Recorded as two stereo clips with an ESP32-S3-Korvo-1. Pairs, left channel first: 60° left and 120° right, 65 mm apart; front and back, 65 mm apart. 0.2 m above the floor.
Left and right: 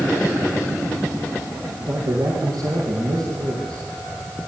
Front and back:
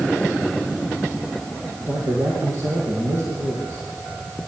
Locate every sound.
1.8 s a man speaking: 130° right, 5 m; by 3.9 s 140° right, 6 m